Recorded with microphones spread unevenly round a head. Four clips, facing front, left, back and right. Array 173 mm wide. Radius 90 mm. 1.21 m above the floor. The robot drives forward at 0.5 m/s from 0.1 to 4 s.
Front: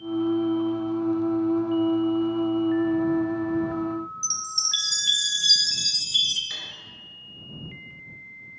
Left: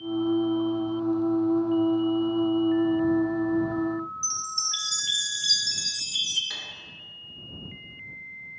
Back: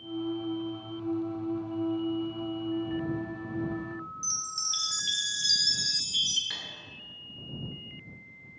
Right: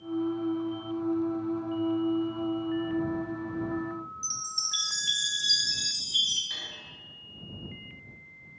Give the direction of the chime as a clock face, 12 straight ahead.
10 o'clock.